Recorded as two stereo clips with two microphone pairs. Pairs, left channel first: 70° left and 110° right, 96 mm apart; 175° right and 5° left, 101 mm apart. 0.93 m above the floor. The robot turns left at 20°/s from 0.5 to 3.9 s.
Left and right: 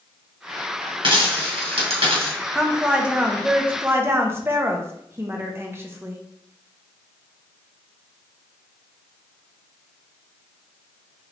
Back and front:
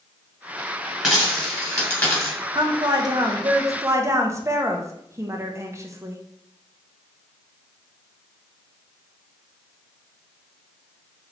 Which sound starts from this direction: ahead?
A woman speaking, at 2.5 s.